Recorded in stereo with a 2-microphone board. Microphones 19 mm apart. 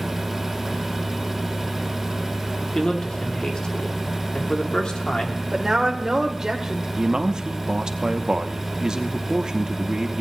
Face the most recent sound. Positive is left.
turn(degrees=-40)  # may be behind; listen again after turning